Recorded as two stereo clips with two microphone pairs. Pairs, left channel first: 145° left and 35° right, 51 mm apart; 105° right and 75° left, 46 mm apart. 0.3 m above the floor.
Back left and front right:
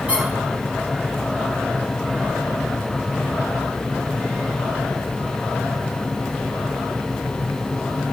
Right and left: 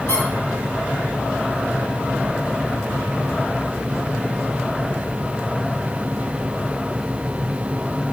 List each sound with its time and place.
0.1 s a squeak: 100° right, 3.5 m